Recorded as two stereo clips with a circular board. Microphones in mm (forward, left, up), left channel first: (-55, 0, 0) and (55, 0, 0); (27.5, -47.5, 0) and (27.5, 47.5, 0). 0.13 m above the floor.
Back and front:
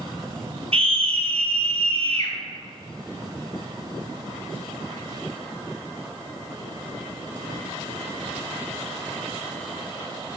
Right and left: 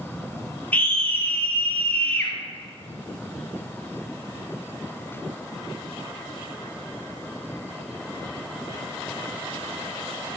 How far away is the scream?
About 3 m.